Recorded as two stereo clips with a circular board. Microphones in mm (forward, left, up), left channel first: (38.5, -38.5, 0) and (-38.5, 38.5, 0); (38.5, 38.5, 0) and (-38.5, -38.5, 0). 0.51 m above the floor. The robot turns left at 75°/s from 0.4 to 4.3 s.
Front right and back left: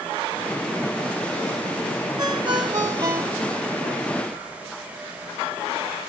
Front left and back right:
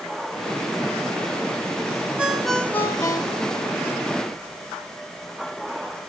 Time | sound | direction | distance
2.2 | a ringtone | 150° left | 0.6 m